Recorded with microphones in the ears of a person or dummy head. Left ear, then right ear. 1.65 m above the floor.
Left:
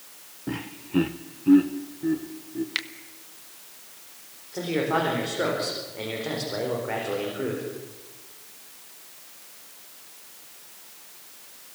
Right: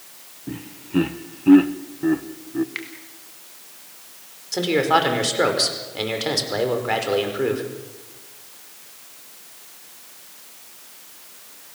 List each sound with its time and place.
0.5 s laughter: 35° left (ahead or behind), 0.5 m; by 2.6 s 45° right (ahead or behind), 1.2 m
2.8 s a finger snap: 35° left (ahead or behind), 1.3 m
4.5 s a man speaking: 85° right, 5 m